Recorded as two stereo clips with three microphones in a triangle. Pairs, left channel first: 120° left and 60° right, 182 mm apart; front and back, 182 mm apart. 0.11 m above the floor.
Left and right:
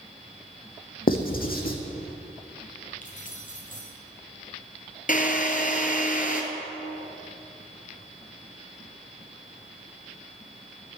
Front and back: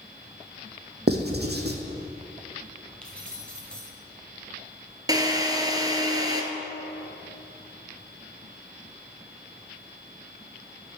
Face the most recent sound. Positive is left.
turn(degrees=115)